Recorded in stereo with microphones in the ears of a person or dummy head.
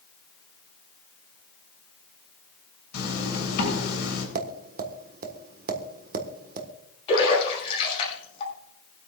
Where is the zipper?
70° left (ahead or behind), 7.5 m.